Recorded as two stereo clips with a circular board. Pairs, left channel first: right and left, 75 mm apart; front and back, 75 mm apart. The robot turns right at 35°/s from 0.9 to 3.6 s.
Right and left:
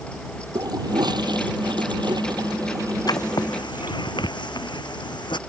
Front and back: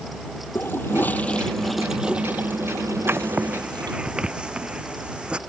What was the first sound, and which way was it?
A toilet flushing, 60° left.